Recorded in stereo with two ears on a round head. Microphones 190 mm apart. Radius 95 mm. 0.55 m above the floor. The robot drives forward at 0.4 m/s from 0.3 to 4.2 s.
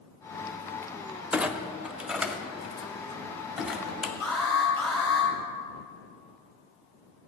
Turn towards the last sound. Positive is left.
turn(degrees=5)  # may be behind; listen again after turning